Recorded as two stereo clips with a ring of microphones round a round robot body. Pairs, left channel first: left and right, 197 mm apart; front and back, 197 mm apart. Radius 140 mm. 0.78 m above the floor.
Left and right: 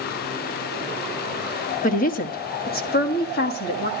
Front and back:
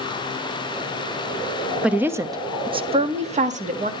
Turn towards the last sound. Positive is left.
turn(degrees=135)